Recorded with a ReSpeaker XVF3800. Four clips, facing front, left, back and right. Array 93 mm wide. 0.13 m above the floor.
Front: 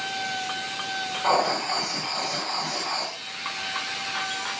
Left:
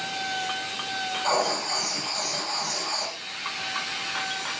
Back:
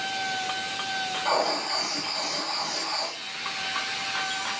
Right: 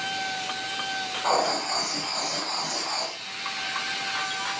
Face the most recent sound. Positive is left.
turn(degrees=-30)